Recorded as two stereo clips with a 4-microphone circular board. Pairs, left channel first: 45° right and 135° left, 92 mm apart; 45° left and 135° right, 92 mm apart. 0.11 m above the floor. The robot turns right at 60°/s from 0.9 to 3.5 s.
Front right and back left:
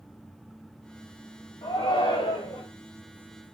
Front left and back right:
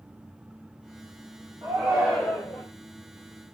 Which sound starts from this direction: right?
A shout, at 1.6 s.